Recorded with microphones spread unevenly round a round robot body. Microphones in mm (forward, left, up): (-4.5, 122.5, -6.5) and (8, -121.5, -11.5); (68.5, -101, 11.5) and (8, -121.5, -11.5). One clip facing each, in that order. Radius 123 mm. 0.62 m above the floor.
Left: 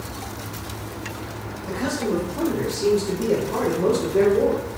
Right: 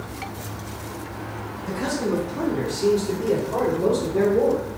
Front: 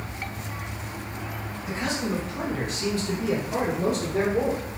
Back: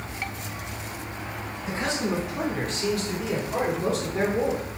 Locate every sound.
1.7 s a man speaking: 155° right, 1.7 m; by 4.6 s 25° left, 2 m